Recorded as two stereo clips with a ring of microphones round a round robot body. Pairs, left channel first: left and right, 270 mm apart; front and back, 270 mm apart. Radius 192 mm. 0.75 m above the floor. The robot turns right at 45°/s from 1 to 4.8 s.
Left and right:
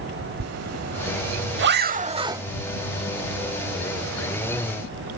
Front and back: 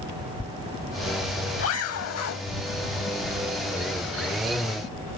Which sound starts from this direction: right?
A zipper, at 0.4 s.